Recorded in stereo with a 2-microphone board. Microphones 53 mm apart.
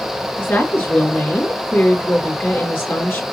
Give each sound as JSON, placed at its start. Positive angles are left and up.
{"t": 0.4, "sound": "a woman speaking", "side_deg": 50, "distance_m": 2.5}